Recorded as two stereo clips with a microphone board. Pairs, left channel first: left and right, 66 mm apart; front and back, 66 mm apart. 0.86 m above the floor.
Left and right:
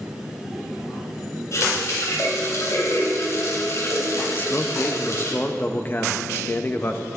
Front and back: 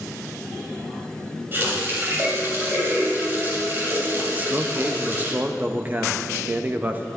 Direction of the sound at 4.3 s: 130° left.